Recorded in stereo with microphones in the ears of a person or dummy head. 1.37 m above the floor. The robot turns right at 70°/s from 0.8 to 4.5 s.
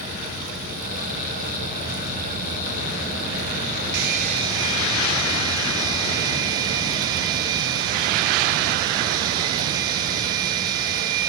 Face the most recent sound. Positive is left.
turn(degrees=-25)